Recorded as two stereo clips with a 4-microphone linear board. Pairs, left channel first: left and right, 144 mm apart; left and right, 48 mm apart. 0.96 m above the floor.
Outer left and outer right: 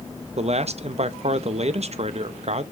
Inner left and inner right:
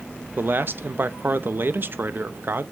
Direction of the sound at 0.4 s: 45° right (ahead or behind).